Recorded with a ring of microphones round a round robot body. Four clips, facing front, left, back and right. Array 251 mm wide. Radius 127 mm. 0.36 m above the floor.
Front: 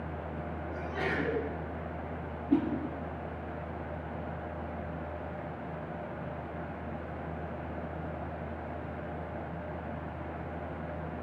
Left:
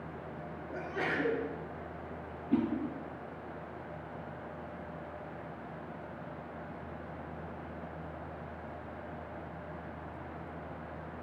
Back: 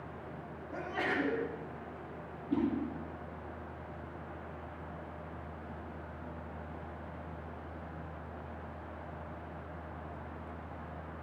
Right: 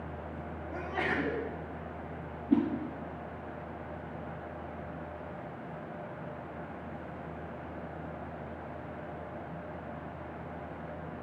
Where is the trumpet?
I don't hear a trumpet.